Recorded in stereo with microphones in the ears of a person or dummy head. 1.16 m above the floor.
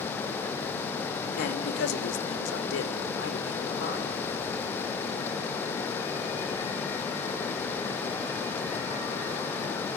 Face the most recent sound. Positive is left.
turn(degrees=70)  # may be behind; listen again after turning